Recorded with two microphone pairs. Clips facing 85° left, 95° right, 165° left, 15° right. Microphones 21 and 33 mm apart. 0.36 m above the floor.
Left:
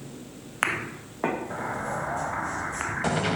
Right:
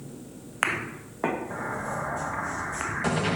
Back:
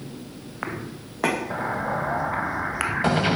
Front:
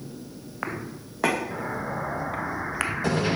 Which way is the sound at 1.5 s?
160° left.